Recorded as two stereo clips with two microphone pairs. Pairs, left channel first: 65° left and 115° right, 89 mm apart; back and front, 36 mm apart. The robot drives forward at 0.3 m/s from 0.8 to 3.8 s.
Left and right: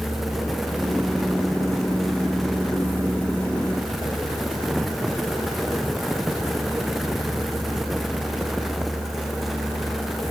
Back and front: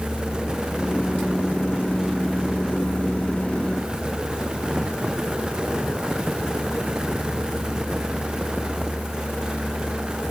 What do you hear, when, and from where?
Only background noise.